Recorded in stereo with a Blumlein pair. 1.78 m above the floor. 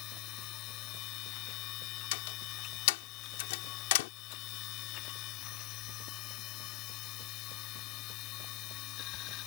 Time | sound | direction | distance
0.0 | a machine running | 40° left | ?
2.1 | a door slam | 50° left | ?